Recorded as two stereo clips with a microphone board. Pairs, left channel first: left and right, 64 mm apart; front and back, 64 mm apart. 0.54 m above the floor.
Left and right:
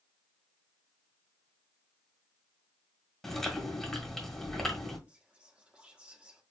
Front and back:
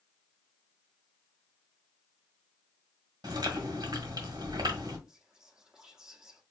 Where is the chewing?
175° left, 1.6 m.